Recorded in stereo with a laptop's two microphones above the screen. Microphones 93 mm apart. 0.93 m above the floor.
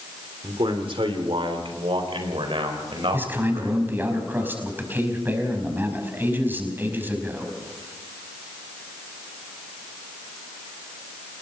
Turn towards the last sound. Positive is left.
turn(degrees=-20)  # may be behind; listen again after turning